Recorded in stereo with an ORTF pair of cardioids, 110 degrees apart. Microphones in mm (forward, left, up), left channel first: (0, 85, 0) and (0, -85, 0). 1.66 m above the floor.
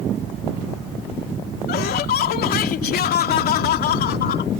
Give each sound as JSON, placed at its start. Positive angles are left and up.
{"t": 1.7, "sound": "laughter", "azimuth_deg": 65}